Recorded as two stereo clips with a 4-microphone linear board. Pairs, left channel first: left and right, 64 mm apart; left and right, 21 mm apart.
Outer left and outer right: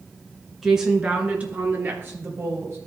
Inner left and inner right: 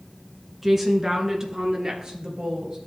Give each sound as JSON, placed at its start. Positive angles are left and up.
{"t": 0.6, "sound": "a woman speaking", "side_deg": -5, "distance_m": 1.6}